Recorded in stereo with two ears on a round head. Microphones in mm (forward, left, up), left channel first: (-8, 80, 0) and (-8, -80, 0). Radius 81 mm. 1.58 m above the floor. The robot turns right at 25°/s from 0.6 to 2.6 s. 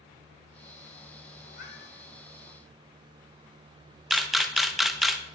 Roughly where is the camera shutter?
Centre.